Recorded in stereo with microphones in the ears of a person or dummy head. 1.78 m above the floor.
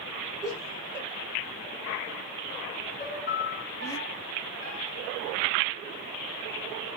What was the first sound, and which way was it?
Laughter, 15° right (ahead or behind).